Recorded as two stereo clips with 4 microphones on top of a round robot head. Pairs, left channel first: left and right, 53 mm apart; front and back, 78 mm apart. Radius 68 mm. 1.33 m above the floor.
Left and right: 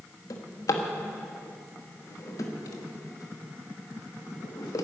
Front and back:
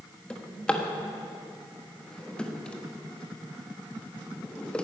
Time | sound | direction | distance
0.3 | a drawer | 80° left | 1.2 m